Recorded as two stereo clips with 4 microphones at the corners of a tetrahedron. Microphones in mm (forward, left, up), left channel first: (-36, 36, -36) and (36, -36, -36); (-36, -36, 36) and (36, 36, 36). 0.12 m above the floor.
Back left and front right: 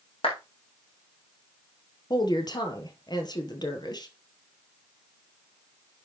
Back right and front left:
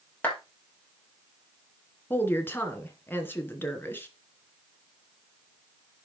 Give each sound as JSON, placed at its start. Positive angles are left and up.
{"t": 0.2, "sound": "a clap", "azimuth_deg": 155, "distance_m": 4.0}
{"t": 2.1, "sound": "a woman speaking", "azimuth_deg": 160, "distance_m": 2.0}